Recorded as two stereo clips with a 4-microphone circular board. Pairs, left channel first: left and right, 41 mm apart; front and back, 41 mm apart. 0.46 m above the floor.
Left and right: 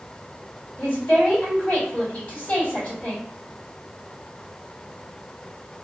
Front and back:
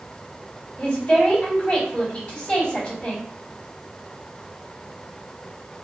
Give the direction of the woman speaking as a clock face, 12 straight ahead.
10 o'clock.